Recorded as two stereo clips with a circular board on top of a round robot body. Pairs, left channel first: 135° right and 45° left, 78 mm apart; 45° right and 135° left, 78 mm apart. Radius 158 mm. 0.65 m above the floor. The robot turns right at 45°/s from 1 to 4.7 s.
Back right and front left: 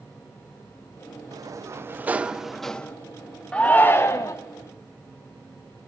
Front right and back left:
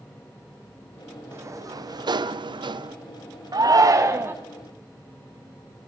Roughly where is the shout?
Behind left.